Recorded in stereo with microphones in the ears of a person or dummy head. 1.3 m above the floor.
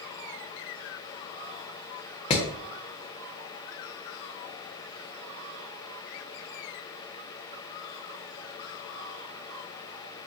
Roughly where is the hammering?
Left.